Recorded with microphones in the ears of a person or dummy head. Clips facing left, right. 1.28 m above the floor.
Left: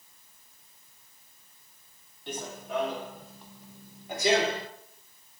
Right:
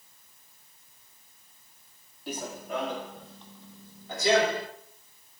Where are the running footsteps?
5° right (ahead or behind), 2.5 m; by 4.7 s 25° left (ahead or behind), 1.9 m.